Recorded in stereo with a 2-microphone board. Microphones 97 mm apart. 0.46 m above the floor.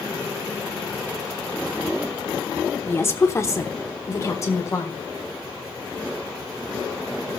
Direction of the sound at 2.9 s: 25° left (ahead or behind).